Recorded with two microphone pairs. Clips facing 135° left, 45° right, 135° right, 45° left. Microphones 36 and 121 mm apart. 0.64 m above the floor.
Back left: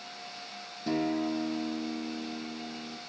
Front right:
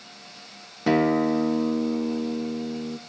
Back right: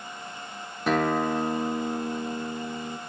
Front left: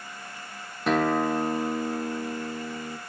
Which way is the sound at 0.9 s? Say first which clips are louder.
Front right 9 dB, front left 1 dB; 45° right.